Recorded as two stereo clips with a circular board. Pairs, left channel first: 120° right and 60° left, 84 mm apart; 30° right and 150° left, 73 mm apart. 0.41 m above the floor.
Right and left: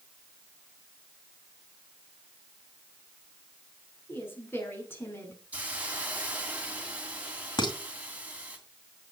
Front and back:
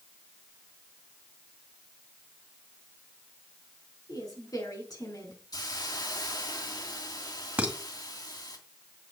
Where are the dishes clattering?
140° right, 1.9 m.